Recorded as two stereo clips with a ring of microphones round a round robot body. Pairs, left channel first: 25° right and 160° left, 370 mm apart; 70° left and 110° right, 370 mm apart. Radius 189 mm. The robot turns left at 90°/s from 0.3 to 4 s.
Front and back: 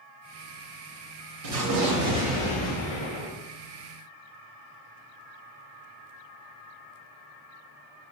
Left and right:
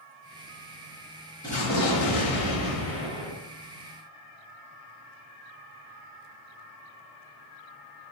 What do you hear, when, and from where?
1.4 s an explosion: 145° left, 1.0 m; by 3.3 s 20° right, 1.0 m